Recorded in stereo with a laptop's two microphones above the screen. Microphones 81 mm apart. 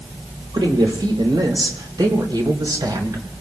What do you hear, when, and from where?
0.5 s a man speaking: 70° right (ahead or behind), 3.5 m; by 3.2 s 60° right (ahead or behind), 4.5 m